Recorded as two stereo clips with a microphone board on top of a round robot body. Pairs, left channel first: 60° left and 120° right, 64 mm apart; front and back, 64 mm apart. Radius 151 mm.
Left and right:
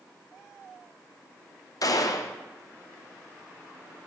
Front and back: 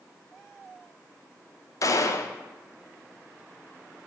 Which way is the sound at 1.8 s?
35° left.